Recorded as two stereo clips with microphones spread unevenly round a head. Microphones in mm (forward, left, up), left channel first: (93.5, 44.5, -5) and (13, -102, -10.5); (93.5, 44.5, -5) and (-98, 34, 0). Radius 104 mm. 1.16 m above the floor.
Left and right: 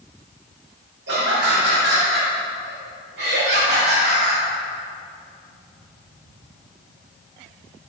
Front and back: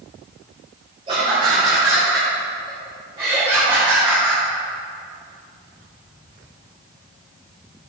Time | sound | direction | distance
1.1 | laughter | 115° right | 4 m